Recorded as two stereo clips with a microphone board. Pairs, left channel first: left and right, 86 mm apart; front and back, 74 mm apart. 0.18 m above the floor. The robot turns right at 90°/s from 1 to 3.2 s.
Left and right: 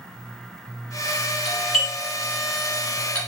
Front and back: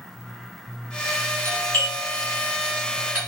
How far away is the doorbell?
About 1.6 m.